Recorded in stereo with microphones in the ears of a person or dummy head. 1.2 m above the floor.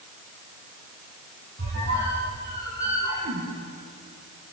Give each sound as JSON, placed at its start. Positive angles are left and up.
{"t": 1.6, "sound": "a squeak", "side_deg": -50, "distance_m": 6.5}